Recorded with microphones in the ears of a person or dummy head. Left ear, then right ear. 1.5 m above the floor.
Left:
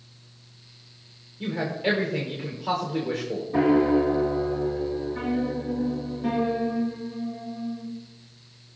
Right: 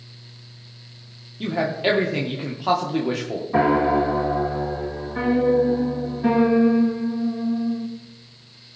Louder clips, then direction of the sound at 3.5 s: Right 3 dB; 35° right (ahead or behind).